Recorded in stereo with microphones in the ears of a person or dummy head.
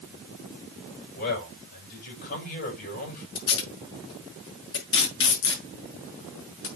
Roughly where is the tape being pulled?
Left.